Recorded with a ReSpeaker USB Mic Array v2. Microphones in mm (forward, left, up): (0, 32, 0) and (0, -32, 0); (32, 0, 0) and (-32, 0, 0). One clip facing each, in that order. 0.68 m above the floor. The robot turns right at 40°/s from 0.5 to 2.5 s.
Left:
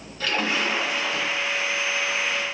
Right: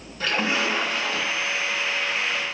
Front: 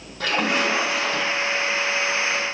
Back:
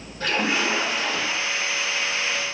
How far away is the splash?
About 3.5 m.